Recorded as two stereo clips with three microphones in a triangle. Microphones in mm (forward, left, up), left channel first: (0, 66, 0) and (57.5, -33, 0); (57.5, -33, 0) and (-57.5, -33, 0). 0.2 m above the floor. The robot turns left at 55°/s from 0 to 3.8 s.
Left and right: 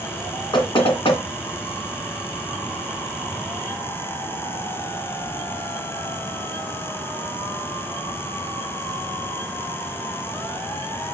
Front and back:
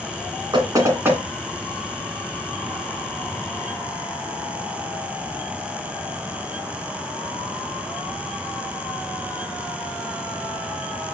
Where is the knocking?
145° left, 1.9 m; by 1.2 s 110° left, 1.9 m.